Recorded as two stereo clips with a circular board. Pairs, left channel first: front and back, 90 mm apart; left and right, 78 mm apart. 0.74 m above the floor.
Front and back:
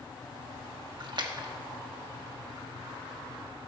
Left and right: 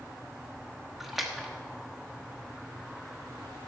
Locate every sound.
1.0 s a splash: 175° right, 1.1 m